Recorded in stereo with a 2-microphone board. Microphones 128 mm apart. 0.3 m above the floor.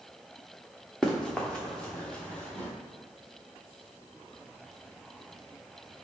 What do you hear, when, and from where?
1.0 s running footsteps: 5° left (ahead or behind), 1.9 m; by 2.7 s 10° left (ahead or behind), 3.5 m